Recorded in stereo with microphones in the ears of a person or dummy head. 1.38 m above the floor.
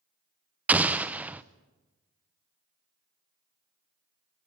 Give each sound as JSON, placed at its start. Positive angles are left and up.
{"t": 0.7, "sound": "an explosion", "side_deg": -5, "distance_m": 0.6}